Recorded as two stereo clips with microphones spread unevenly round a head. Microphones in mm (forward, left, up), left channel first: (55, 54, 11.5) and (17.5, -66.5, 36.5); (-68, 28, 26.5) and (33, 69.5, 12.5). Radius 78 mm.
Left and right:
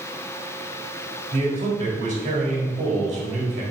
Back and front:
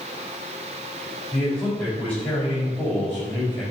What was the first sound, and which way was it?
A man speaking, 75° right.